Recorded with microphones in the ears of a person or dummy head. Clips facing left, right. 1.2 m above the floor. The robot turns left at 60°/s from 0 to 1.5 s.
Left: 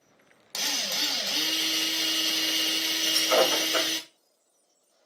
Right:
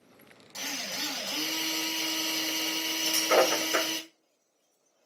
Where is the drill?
70° left, 1.1 m; by 4.0 s 10° left, 1.1 m.